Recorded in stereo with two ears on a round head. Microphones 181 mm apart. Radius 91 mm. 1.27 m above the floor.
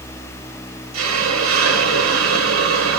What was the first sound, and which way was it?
A hiss, 75° right (ahead or behind).